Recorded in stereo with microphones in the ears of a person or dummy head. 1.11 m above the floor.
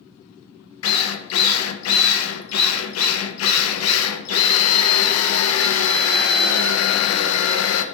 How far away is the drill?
About 0.6 m.